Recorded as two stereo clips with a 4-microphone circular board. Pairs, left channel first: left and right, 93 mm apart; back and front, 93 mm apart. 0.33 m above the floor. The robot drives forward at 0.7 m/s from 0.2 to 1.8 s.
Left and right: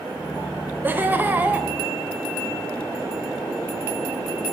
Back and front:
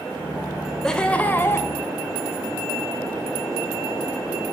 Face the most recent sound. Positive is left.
turn(degrees=-150)